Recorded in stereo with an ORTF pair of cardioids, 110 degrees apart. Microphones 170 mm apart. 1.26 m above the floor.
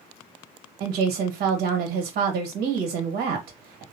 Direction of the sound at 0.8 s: 65° right.